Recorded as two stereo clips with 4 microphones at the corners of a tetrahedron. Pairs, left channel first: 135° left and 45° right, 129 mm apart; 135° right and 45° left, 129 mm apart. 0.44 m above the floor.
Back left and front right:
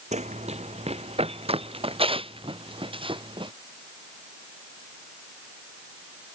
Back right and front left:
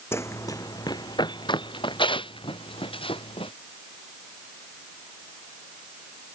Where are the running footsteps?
65° right; by 3.5 s 90° right.